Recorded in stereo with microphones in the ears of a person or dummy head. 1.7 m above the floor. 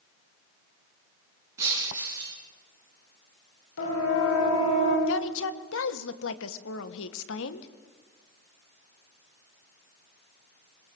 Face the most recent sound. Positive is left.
turn(degrees=80)